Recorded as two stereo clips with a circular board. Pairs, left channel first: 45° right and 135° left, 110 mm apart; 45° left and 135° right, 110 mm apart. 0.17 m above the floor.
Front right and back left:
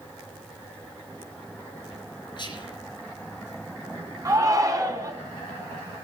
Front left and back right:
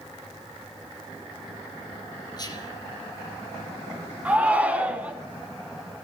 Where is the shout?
160° left, 1.7 m.